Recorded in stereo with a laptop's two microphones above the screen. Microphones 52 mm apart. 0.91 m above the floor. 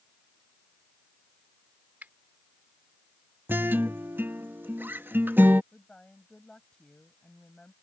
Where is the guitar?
40° right (ahead or behind).